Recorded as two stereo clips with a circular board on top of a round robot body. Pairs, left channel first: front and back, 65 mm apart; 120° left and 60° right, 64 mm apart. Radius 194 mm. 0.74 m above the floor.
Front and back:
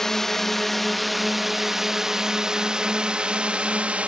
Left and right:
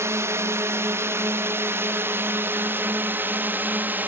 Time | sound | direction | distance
0.0 | a drone | 80° right | ?